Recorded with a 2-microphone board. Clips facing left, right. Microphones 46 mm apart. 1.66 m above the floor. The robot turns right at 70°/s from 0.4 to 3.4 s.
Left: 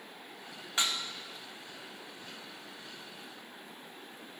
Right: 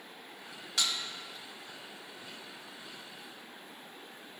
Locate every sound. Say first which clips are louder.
0.8 s dishes clattering: left 1 dB; 25° left (ahead or behind), 0.7 m